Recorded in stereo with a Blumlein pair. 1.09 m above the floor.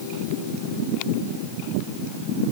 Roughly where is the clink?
I don't hear a clink.